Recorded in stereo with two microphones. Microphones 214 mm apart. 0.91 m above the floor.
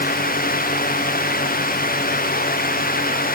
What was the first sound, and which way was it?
Only background noise.